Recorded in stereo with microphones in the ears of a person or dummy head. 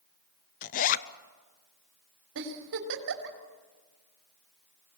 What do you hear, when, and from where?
0.6 s a zipper: 50° left (ahead or behind), 0.7 m
2.4 s a giggle: 65° right (ahead or behind), 3 m